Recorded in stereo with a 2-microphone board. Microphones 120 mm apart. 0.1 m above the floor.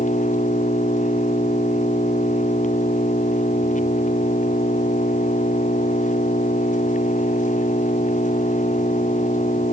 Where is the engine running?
80° left.